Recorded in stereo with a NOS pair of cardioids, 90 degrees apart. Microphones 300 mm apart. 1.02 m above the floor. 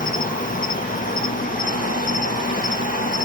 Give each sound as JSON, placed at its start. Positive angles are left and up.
{"t": 0.0, "sound": "an insect", "azimuth_deg": 25, "distance_m": 0.7}